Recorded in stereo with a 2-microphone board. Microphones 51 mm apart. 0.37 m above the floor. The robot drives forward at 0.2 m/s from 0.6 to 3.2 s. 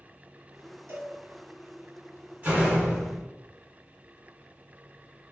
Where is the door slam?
30° right (ahead or behind), 1.7 m.